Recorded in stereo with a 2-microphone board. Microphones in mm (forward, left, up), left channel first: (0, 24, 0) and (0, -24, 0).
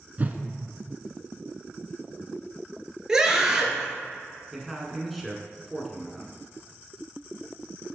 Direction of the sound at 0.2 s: 35° right (ahead or behind).